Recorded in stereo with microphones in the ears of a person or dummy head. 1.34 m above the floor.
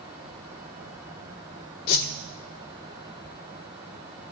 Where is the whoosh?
50° left (ahead or behind), 1.7 m.